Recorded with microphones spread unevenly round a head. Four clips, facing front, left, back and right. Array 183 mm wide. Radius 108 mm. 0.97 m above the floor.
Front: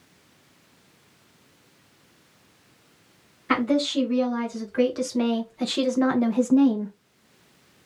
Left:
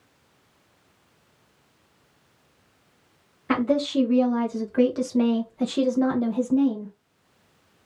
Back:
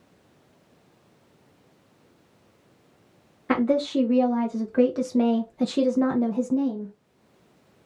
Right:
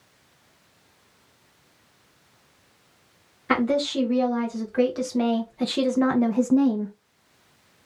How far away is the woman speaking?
About 1.7 m.